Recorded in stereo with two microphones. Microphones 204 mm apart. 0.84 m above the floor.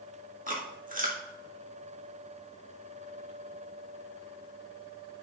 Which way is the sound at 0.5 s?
40° right (ahead or behind).